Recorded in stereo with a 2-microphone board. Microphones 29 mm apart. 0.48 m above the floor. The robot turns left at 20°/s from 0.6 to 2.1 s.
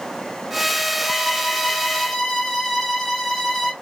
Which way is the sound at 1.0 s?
10° right (ahead or behind).